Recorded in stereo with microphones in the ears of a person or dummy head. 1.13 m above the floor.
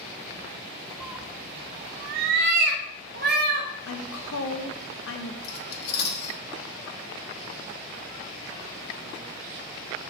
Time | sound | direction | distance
1.0 | a cat meowing | centre (ahead or behind) | 0.6 m
3.9 | a woman speaking | 75° left (ahead or behind) | 0.8 m
5.4 | cutlery clinking | 55° left (ahead or behind) | 1.7 m